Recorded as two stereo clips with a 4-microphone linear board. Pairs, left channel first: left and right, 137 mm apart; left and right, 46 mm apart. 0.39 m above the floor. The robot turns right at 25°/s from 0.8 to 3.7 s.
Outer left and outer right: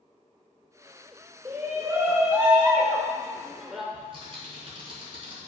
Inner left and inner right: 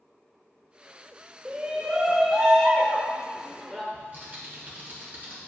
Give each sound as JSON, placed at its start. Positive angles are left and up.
{"t": 1.4, "sound": "a shout", "side_deg": -25, "distance_m": 0.8}
{"t": 3.9, "sound": "typing on a keyboard", "side_deg": -40, "distance_m": 3.0}